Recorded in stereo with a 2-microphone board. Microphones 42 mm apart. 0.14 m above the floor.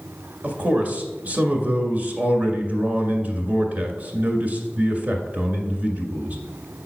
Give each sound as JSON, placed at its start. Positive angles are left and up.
{"t": 0.4, "sound": "a man speaking", "side_deg": -40, "distance_m": 1.9}